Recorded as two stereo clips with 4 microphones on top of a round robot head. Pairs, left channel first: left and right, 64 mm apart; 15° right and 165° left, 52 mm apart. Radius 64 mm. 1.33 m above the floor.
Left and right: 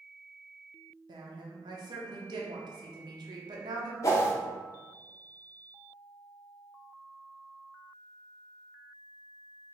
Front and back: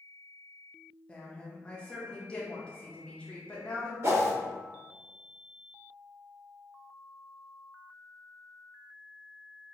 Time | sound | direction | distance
1.1 | a woman speaking | 90° right | 0.8 m
4.0 | a whoosh | 130° left | 1.0 m